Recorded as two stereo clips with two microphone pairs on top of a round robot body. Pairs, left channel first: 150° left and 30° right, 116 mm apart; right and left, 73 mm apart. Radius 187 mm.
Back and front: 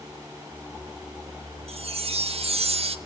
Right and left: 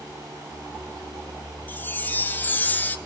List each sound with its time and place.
1.7 s a chime: 25° right, 1.1 m